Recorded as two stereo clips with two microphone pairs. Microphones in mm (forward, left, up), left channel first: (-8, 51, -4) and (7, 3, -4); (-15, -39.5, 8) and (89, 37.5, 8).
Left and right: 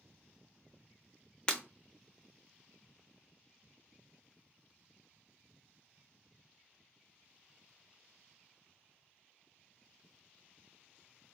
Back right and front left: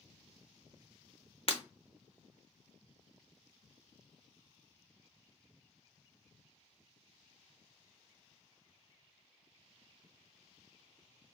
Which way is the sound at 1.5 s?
Straight behind.